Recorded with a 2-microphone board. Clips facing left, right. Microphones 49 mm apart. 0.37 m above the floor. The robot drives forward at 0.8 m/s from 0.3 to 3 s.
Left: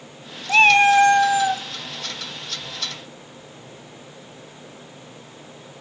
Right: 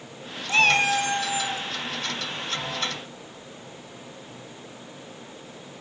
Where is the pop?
No pop in this recording.